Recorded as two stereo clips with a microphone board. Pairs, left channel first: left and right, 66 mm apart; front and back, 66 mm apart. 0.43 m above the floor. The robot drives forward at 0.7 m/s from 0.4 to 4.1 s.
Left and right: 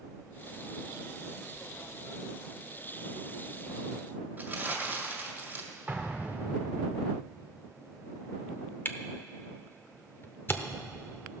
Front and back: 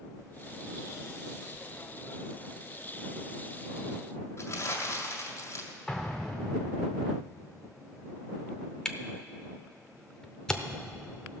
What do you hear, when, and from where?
4.4 s crumpling: 35° right, 1.8 m
5.9 s an explosion: 75° right, 1.1 m
8.8 s a camera shutter: 70° left, 0.7 m